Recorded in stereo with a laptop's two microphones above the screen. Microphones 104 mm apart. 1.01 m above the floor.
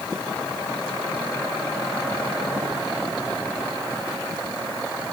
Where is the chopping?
No chopping in this recording.